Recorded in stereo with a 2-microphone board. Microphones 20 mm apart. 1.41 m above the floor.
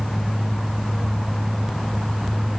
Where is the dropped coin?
I don't hear a dropped coin.